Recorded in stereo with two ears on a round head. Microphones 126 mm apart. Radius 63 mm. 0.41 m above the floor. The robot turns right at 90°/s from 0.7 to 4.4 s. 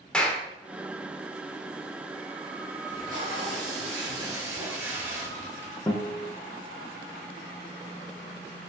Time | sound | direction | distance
0.1 | a clap | 5° left (ahead or behind) | 0.6 m
2.9 | tape being pulled | 160° right | 1.0 m
5.9 | a guitar | 20° left (ahead or behind) | 0.6 m